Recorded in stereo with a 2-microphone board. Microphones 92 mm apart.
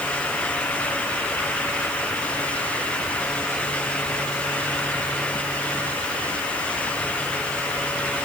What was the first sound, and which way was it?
Only background noise.